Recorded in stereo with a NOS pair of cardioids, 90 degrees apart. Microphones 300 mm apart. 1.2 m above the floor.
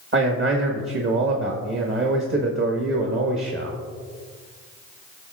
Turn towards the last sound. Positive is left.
turn(degrees=-40)